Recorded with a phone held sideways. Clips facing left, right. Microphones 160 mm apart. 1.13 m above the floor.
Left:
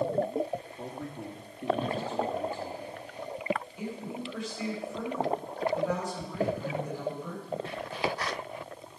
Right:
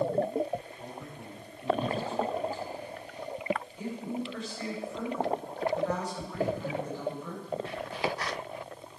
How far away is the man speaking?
About 2.5 m.